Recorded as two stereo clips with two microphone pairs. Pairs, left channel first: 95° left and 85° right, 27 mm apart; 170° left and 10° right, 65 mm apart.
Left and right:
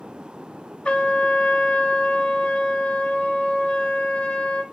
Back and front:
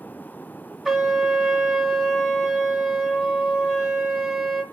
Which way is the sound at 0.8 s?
80° left.